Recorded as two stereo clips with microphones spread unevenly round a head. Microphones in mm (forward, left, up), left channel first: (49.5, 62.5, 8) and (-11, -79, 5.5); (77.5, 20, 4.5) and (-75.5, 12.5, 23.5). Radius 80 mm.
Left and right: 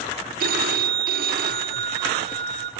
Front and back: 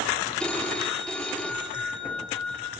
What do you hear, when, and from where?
0.4 s a phone ringing: 85° right, 1.1 m